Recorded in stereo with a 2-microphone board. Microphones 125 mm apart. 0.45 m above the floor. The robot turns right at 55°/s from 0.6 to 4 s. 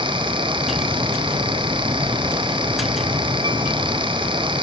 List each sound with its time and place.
Only background noise.